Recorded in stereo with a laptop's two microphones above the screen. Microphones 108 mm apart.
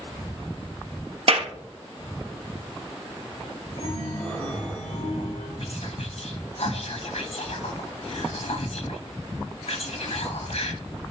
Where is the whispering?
70° left (ahead or behind), 1.2 m.